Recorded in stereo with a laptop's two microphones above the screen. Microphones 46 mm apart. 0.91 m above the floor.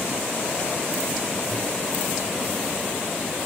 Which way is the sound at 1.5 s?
15° left (ahead or behind).